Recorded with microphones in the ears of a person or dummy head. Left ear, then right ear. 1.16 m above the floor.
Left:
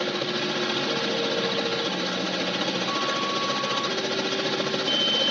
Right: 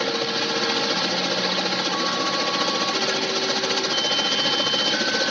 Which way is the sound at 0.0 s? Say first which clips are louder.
Right 3 dB; 25° right (ahead or behind).